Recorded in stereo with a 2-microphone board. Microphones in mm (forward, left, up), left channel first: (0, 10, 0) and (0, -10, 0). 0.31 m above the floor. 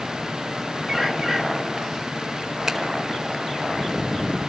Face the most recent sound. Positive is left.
turn(degrees=-15)  # may be behind; listen again after turning